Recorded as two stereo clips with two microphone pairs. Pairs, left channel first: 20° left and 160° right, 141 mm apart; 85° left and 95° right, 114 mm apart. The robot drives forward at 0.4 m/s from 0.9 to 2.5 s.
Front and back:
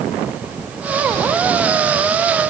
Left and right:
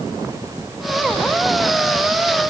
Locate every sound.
Only background noise.